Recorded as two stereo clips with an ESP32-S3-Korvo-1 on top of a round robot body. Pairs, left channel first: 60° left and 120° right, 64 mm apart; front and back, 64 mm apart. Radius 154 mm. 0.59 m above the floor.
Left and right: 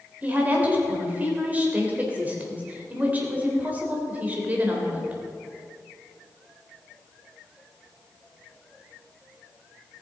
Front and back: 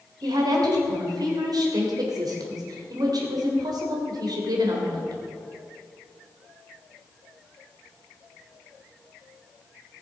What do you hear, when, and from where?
0.2 s a woman speaking: 175° left, 3.5 m